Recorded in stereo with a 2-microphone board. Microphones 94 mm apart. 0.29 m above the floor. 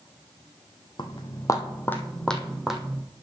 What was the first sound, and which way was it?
Footsteps, 55° left (ahead or behind).